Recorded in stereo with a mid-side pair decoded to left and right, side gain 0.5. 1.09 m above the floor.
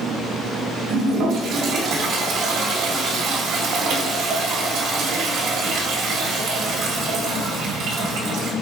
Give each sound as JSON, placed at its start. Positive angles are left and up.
{"t": 0.9, "sound": "a toilet flushing", "azimuth_deg": -70, "distance_m": 1.4}